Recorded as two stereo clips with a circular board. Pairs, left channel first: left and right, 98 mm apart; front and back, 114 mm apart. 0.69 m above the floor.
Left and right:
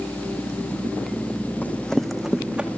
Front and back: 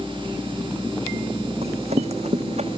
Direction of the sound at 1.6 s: 165° left.